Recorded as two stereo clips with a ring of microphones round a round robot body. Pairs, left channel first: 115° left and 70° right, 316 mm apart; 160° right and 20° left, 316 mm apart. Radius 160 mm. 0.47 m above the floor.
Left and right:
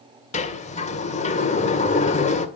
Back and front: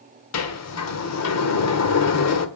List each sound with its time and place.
0.3 s a sliding door: straight behind, 1.9 m